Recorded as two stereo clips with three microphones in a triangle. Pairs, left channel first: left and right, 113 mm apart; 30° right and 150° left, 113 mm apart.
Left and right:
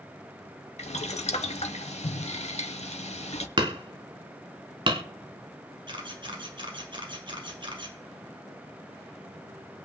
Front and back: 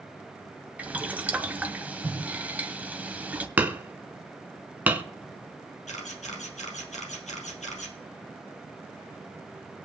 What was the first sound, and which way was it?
Boiling, 75° left.